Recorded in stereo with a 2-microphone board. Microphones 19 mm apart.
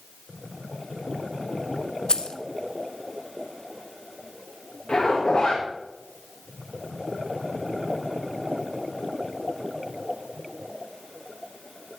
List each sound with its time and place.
2.1 s keys jangling: 55° left (ahead or behind), 1.1 m
4.9 s a zipper: 55° left (ahead or behind), 6.5 m